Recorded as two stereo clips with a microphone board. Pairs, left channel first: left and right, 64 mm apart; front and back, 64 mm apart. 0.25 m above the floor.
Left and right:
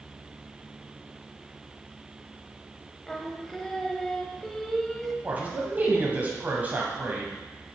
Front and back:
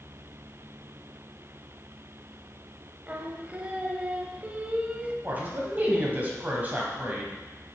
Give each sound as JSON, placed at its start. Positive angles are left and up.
{"t": 3.1, "sound": "singing", "azimuth_deg": 165, "distance_m": 0.6}
{"t": 5.2, "sound": "a man speaking", "azimuth_deg": -140, "distance_m": 1.2}